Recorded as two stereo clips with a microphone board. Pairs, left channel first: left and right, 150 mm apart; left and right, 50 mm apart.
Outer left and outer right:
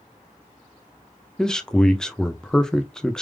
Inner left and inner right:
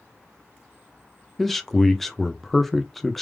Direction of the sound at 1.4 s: 5° left (ahead or behind).